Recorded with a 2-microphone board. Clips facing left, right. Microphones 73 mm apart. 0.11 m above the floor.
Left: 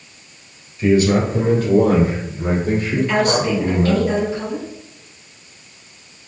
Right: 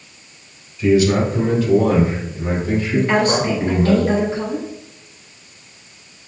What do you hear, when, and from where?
0.8 s a man speaking: 50° left (ahead or behind), 2 m; by 3.9 s 65° left (ahead or behind), 4 m
2.9 s a woman speaking: 45° right (ahead or behind), 1.9 m